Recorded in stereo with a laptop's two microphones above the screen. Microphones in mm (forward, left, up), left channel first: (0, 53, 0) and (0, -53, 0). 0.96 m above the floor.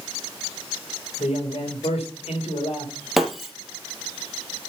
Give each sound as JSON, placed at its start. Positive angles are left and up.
{"t": 1.2, "sound": "a man speaking", "side_deg": 75, "distance_m": 4.0}
{"t": 3.2, "sound": "breaking glass", "side_deg": 0, "distance_m": 1.5}